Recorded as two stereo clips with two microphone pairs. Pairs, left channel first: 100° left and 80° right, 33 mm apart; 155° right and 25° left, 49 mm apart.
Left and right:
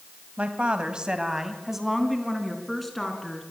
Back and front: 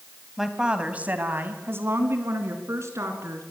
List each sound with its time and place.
0.4 s a woman speaking: 55° right, 1.8 m; by 3.4 s 20° left, 4 m